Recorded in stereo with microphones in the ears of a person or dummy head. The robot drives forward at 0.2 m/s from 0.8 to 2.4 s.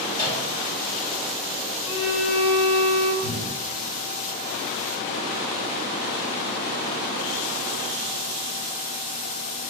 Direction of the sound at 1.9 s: 15° right (ahead or behind).